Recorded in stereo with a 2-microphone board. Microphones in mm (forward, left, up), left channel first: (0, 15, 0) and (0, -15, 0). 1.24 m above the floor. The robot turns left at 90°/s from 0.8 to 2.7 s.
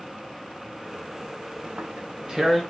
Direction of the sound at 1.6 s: 75° right (ahead or behind).